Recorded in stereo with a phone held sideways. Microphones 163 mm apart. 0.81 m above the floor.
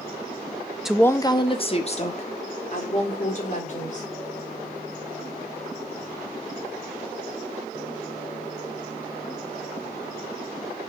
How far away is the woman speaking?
About 0.5 m.